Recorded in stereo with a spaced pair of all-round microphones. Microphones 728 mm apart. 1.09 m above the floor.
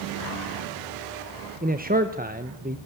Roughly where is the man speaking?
Centre.